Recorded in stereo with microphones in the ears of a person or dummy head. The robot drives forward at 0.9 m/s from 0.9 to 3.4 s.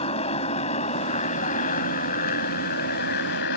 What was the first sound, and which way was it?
A motorcycle, 35° left (ahead or behind).